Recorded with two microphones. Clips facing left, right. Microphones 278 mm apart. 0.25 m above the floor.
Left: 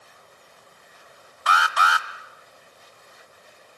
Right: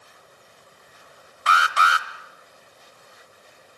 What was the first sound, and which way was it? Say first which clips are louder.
An alarm: even; 30° right (ahead or behind).